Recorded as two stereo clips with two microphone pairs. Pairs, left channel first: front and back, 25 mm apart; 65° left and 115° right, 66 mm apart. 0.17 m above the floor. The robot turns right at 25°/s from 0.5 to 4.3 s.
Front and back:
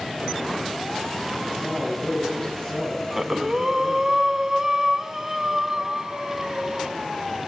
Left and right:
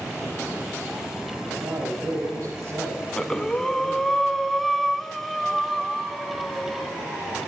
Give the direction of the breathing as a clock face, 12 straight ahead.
8 o'clock.